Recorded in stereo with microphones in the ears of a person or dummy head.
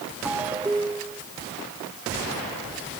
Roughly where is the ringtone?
Centre.